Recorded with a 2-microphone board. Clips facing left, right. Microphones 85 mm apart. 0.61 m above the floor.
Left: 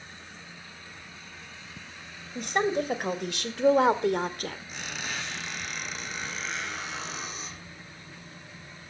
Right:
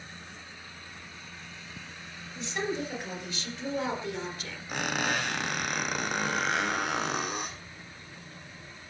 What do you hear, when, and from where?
2.4 s a woman speaking: 55° left (ahead or behind), 3 m; by 4.6 s 50° left (ahead or behind), 1.9 m
4.7 s a squeak: 60° right (ahead or behind), 3 m